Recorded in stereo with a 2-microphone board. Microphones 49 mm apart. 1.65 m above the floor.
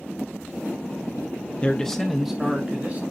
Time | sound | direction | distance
1.6 | a man speaking | 25° left (ahead or behind) | 0.7 m